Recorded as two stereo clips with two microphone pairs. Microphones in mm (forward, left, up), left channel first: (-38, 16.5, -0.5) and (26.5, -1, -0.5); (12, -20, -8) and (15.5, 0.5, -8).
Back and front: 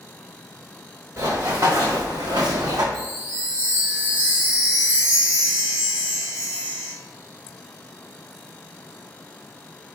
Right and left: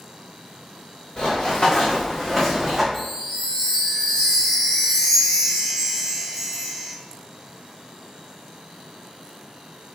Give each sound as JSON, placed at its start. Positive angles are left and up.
{"t": 1.2, "sound": "running footsteps", "azimuth_deg": -55, "distance_m": 1.4}
{"t": 2.9, "sound": "a chime", "azimuth_deg": -25, "distance_m": 1.7}